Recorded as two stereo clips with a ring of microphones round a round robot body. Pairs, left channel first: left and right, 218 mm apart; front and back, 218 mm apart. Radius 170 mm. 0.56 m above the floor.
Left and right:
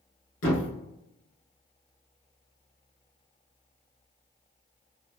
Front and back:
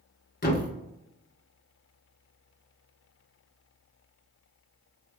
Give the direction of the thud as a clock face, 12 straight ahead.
11 o'clock.